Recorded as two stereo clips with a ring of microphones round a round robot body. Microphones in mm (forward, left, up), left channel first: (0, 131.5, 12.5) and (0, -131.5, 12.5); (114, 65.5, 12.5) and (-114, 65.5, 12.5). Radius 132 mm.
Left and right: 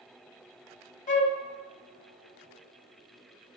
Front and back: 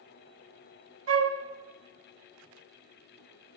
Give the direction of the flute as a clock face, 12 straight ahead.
7 o'clock.